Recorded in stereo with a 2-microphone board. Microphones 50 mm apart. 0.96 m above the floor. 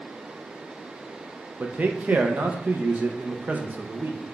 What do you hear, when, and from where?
1.6 s a man speaking: 30° right (ahead or behind), 0.5 m